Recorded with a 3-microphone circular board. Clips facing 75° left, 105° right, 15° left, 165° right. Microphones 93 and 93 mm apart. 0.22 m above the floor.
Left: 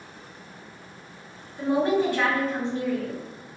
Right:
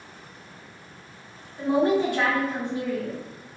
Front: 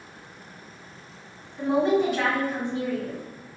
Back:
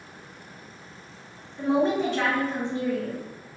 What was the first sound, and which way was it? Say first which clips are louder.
A woman speaking: right 1 dB, front 1 dB; 75° right.